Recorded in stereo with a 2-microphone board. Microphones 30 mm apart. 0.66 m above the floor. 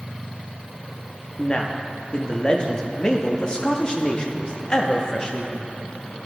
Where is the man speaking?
30° left (ahead or behind), 0.6 m.